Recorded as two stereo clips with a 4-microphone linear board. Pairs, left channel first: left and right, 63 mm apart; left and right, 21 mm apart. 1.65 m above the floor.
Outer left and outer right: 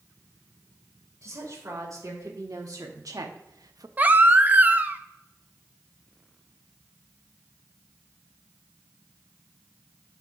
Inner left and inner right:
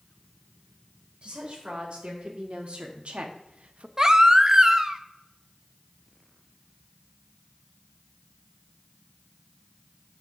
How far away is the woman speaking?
About 3 m.